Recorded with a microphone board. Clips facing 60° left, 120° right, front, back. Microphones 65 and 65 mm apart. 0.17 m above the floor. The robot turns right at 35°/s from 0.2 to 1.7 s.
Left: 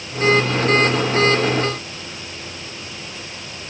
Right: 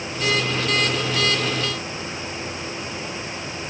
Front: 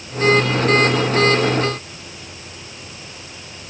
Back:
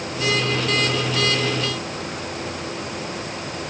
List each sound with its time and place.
Only background noise.